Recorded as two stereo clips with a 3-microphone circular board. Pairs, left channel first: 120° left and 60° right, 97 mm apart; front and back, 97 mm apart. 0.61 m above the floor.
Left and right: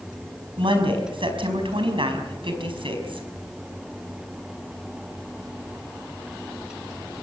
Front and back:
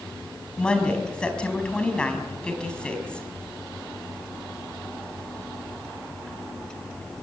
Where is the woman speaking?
80° right, 5 m.